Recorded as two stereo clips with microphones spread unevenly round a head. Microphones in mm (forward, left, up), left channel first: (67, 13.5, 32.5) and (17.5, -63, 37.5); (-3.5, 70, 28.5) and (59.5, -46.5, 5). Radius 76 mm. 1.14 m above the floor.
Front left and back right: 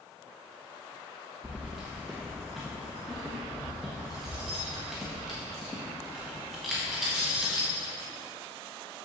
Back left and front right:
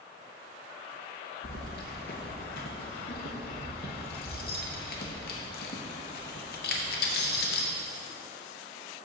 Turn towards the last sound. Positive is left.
turn(degrees=150)